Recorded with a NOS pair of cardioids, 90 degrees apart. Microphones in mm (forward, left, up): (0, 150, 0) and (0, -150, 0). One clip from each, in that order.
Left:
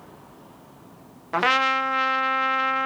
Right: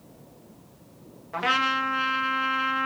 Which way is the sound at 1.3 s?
45° left.